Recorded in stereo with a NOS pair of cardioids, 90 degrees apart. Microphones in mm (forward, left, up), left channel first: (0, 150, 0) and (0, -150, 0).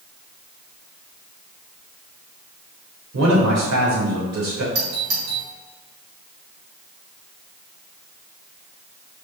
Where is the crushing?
No crushing in this recording.